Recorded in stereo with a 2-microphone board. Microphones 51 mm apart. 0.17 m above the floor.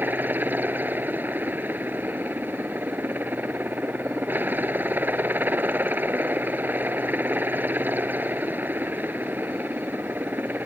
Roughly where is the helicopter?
Right.